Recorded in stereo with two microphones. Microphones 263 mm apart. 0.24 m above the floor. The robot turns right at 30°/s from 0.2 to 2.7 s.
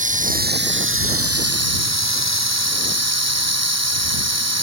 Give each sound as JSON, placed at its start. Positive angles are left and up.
{"t": 0.0, "sound": "running water", "azimuth_deg": -150}